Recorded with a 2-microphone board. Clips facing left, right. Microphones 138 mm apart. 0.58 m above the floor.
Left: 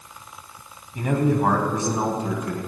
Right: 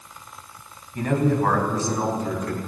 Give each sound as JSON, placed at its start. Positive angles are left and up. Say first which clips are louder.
{"t": 0.9, "sound": "a man speaking", "louder": "even", "side_deg": 5, "distance_m": 3.5}